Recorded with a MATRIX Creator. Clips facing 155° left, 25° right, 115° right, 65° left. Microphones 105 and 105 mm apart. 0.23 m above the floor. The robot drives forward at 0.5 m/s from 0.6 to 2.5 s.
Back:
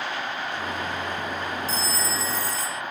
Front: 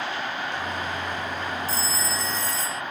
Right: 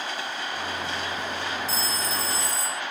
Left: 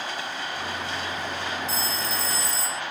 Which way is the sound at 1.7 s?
90° right.